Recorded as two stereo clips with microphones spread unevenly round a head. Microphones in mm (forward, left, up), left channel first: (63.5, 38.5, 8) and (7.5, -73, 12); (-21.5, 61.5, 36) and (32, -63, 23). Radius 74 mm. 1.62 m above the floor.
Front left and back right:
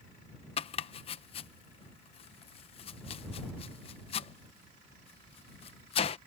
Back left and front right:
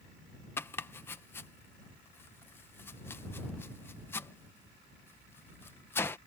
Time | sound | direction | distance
0.6 | chopping | 50° left | ?